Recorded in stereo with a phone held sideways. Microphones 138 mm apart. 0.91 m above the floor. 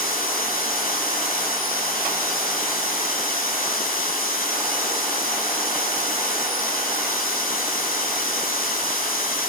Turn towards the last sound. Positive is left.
turn(degrees=80)